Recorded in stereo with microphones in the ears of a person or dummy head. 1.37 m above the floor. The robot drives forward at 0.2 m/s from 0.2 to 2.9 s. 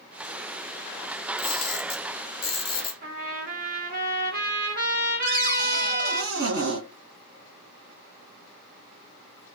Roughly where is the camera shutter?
Left.